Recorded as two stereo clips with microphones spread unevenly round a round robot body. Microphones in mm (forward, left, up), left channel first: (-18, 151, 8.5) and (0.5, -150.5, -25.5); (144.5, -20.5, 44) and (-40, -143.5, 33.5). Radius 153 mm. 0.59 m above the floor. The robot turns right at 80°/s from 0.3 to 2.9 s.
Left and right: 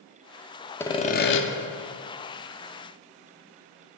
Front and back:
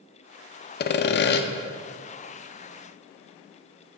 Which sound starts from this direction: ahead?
Sawing, at 0.8 s.